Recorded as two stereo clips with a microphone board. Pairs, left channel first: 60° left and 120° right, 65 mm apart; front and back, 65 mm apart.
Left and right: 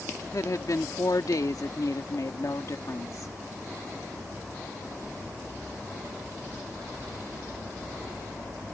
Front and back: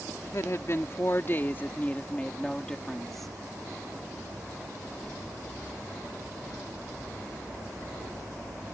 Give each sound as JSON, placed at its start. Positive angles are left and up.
{"t": 0.2, "sound": "a woman speaking", "azimuth_deg": 35}